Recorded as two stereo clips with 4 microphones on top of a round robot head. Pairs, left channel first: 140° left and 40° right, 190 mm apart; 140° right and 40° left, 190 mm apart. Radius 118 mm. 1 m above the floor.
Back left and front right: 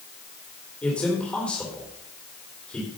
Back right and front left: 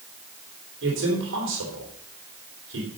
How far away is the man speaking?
About 3.5 m.